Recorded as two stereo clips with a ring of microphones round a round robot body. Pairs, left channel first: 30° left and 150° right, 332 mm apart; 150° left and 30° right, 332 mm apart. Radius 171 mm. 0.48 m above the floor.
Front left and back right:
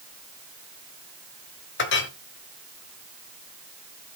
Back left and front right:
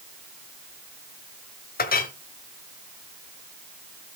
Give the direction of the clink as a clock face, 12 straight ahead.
9 o'clock.